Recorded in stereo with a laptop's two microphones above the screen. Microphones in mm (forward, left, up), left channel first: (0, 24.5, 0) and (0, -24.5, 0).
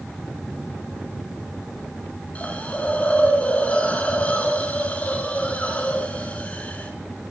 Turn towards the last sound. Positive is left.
turn(degrees=30)  # may be behind; listen again after turning